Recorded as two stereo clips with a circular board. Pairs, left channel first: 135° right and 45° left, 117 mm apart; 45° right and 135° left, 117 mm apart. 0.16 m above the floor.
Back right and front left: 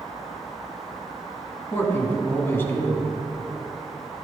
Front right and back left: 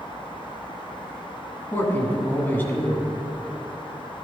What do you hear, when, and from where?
1.7 s a man speaking: 95° right, 1.7 m